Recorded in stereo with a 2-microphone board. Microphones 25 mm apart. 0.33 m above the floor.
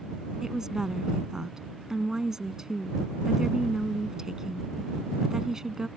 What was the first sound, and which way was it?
A woman speaking, 25° right (ahead or behind).